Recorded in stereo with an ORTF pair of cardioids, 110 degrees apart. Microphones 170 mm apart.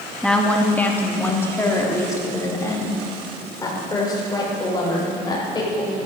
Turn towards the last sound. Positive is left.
turn(degrees=25)